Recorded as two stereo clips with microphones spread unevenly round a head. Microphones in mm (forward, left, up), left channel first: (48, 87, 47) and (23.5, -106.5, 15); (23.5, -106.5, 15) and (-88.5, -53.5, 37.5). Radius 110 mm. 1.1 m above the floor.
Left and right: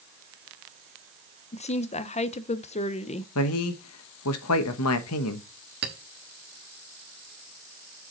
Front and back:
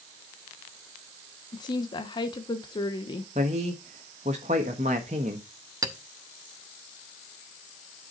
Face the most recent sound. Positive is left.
turn(degrees=-145)